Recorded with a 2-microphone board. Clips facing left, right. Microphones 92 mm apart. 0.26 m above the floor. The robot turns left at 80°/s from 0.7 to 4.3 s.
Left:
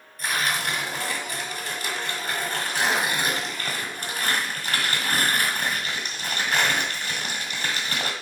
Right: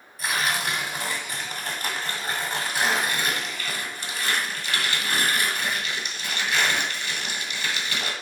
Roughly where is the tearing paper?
Ahead.